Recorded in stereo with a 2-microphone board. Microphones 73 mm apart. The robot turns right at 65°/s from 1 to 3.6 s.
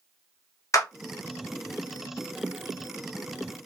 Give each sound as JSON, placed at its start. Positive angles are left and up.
{"t": 0.7, "sound": "a clap", "side_deg": 45, "distance_m": 0.8}